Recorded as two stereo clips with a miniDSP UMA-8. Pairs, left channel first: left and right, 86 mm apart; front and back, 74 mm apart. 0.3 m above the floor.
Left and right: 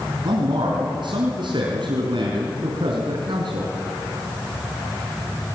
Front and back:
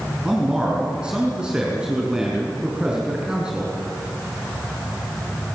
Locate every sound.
0.2 s a man speaking: 100° right, 4 m